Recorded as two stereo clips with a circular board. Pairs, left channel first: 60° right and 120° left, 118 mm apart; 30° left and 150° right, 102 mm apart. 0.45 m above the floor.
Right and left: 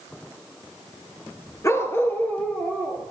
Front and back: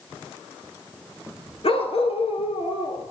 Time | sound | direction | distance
1.6 | a dog barking | 5° left | 2 m